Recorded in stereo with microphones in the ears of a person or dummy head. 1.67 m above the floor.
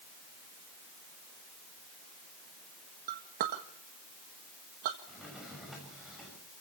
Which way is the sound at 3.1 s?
45° right (ahead or behind).